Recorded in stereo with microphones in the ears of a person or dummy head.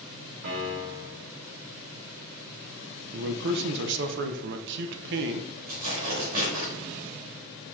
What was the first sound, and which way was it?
A piano, 65° right (ahead or behind).